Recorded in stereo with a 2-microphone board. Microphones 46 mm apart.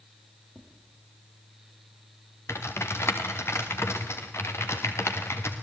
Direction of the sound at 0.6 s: 20° right (ahead or behind).